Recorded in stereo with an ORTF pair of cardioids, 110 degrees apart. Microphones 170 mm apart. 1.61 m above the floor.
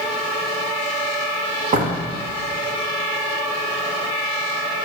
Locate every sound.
1.7 s a door slam: 55° right, 2.5 m